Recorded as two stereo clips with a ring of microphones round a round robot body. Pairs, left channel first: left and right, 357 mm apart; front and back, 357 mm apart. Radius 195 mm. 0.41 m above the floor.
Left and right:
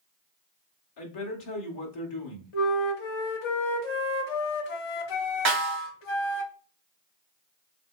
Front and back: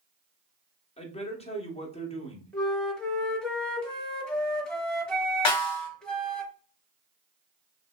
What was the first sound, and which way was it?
A man speaking, 70° left.